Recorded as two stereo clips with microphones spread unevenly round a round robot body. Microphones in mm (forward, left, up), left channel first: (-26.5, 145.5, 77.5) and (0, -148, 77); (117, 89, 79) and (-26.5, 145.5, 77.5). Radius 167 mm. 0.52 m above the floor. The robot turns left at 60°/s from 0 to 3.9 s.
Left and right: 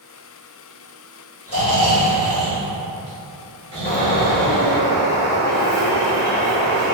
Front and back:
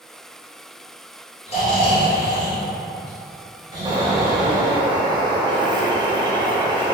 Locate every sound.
1.5 s snoring: 30° left, 1.6 m; by 4.8 s 115° right, 1.6 m
3.9 s a bird: 120° left, 0.7 m; by 7.0 s 115° left, 0.7 m